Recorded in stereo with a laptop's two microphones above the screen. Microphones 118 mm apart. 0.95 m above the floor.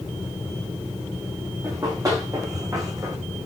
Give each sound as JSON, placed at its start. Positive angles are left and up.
{"t": 1.6, "sound": "running footsteps", "side_deg": -30, "distance_m": 5.0}